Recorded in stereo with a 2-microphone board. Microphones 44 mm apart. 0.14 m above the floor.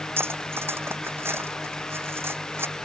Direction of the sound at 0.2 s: 70° right (ahead or behind).